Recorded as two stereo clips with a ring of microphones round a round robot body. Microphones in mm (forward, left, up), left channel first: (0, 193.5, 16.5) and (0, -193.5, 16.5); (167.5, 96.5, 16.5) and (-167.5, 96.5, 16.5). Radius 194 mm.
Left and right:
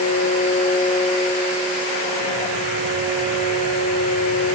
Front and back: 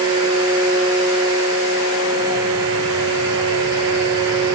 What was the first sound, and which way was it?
Only background noise.